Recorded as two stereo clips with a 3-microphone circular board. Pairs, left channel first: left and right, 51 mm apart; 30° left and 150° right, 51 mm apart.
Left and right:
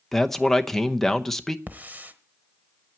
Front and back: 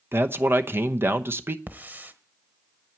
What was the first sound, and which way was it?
A man speaking, 170° left.